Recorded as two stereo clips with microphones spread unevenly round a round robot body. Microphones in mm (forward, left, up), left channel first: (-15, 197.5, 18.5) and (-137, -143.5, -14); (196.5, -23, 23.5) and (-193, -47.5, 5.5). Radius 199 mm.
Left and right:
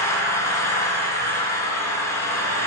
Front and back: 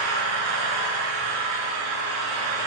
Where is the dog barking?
No dog barking in this recording.